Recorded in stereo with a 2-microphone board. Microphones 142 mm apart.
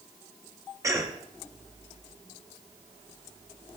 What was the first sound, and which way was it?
A cough, 25° right (ahead or behind).